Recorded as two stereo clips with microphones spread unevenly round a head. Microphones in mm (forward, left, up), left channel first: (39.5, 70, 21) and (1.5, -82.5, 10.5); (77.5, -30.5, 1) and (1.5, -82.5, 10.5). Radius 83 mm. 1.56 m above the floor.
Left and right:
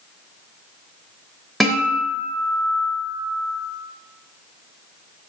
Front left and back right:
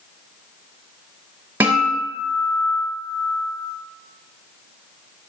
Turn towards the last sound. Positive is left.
turn(degrees=160)